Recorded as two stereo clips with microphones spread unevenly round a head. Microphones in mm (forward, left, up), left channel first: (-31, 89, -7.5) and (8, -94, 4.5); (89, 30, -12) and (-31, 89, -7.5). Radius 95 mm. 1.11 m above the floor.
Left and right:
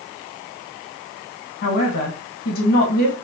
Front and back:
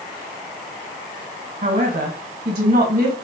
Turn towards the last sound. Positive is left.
turn(degrees=140)